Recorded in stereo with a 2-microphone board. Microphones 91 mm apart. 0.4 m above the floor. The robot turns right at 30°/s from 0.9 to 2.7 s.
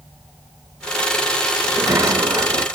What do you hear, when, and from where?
1.6 s a sliding door: 30° right (ahead or behind), 0.8 m; by 2.6 s 40° right (ahead or behind), 0.8 m